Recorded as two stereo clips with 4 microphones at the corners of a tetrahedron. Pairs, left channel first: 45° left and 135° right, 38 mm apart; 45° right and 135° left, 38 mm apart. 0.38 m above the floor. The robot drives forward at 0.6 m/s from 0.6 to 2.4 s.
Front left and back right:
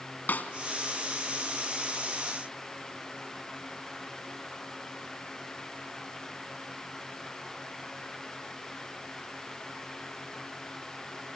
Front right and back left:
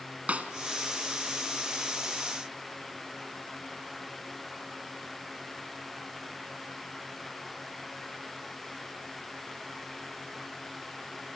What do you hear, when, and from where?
0.3 s a snare drum: 85° left, 2 m